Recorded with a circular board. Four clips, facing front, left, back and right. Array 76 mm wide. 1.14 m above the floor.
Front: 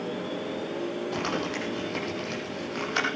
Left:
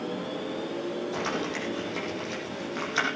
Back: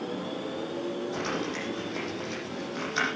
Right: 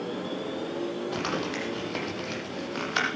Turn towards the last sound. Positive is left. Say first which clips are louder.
# even, front 2 dB
turn(degrees=-55)